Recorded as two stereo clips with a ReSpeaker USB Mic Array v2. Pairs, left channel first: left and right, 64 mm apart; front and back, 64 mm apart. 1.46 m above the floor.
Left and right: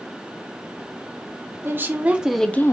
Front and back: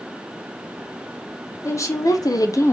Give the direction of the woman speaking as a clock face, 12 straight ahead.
1 o'clock.